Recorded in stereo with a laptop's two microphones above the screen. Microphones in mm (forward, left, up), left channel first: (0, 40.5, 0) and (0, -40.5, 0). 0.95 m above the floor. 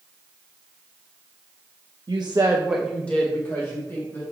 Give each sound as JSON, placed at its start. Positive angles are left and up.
{"t": 2.1, "sound": "a woman speaking", "side_deg": -60, "distance_m": 0.8}